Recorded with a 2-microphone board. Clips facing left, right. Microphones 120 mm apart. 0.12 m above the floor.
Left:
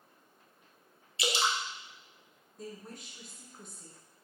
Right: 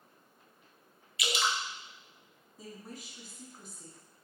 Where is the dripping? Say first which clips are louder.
Left 1 dB; 30° left (ahead or behind), 0.6 m.